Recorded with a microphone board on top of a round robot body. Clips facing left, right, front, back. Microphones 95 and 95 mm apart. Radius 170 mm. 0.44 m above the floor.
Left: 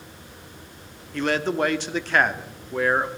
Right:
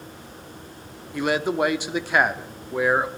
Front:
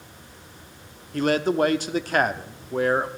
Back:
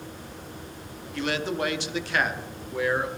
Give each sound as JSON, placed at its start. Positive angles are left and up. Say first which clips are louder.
{"t": 1.1, "sound": "a man speaking", "louder": "right 1 dB, front 7 dB", "azimuth_deg": -15, "distance_m": 1.2}